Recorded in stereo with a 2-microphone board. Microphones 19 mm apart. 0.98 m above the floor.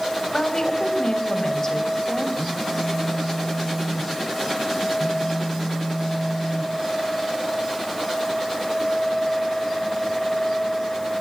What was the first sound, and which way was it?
A woman speaking, 40° left (ahead or behind).